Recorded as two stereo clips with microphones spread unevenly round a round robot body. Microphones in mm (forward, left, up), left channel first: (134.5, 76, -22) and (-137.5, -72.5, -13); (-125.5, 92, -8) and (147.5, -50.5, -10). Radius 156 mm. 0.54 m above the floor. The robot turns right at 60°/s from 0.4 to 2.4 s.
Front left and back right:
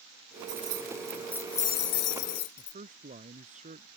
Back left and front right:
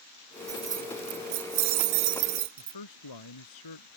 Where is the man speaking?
140° left.